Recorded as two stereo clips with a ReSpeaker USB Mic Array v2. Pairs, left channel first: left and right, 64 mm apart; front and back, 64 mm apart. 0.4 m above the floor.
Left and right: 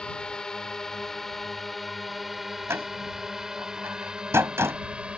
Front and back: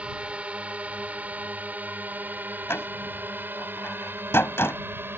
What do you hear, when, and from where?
0.0 s a drone: 145° left; by 5.2 s 155° right
2.7 s a door slam: 45° right